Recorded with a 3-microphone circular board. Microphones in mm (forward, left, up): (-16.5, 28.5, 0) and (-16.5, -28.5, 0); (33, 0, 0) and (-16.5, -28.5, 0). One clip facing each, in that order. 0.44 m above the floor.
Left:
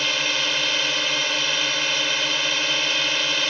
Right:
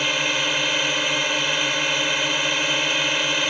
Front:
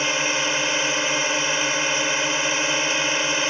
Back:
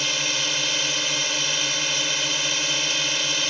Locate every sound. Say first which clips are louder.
0.0 s a drone: right 1 dB, front 4 dB; 15° right